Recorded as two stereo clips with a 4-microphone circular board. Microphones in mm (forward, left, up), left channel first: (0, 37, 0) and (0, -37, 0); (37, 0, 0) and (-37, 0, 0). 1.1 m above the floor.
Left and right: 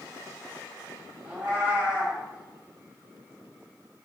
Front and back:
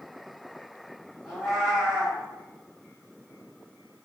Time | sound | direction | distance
1.2 | a cat meowing | 75° right | 0.9 m